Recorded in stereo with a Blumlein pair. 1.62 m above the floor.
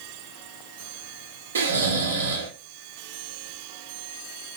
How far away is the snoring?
About 0.6 m.